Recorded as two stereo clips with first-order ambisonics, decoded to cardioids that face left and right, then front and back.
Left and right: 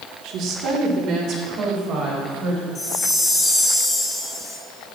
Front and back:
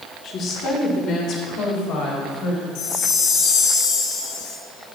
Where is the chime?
15° left, 3 m.